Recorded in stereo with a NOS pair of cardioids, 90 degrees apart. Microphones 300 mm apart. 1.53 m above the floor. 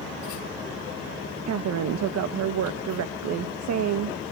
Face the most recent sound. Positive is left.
turn(degrees=-65)